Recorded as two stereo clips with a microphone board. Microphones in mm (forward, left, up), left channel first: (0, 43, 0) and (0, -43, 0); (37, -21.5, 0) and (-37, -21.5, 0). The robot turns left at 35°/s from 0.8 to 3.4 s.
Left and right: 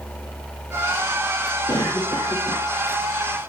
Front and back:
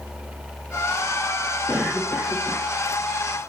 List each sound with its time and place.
1.7 s a cough: 100° left, 2.5 m; by 2.7 s 65° left, 2.5 m